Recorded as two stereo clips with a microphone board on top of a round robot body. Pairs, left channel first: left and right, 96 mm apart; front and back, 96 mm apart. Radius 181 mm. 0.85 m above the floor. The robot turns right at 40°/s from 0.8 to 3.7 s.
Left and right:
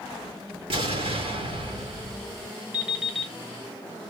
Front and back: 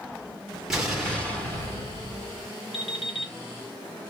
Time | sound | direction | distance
0.7 | an explosion | 95° right | 4 m
2.7 | an alarm clock | 20° right | 3.5 m